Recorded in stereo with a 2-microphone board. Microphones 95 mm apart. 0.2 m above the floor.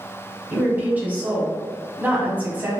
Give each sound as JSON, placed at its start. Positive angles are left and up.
{"t": 0.5, "sound": "a woman speaking", "side_deg": -20, "distance_m": 1.1}